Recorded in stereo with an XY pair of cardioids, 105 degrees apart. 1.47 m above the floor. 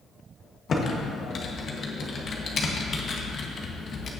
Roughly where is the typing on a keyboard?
Ahead left.